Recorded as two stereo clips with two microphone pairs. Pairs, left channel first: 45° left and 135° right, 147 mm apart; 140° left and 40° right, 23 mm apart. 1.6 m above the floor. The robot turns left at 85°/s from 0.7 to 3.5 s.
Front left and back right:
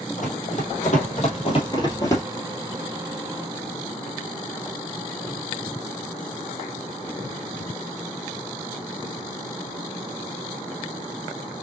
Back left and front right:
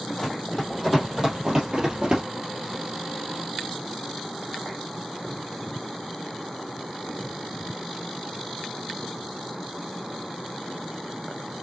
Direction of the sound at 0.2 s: 60° left.